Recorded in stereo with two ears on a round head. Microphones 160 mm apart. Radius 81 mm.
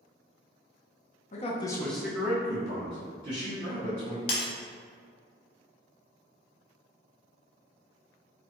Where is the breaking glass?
35° left (ahead or behind), 1.0 m.